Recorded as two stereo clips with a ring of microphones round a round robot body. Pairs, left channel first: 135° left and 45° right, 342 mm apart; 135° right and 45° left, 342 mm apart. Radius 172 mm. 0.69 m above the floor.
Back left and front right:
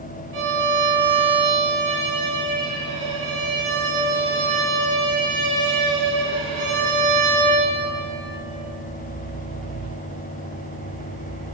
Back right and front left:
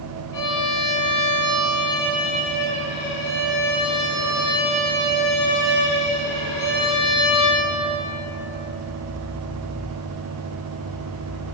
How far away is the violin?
About 5 m.